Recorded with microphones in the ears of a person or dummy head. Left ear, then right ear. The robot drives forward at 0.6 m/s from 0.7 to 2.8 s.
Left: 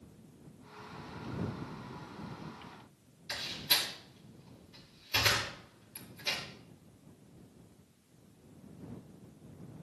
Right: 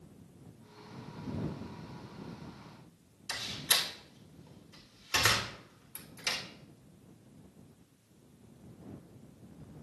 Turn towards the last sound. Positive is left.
turn(degrees=-50)  # may be behind; listen again after turning